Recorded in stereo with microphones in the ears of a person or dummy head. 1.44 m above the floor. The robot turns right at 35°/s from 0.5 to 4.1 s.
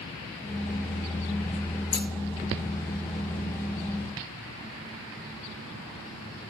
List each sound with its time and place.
1.9 s scissors: 30° left (ahead or behind), 1.0 m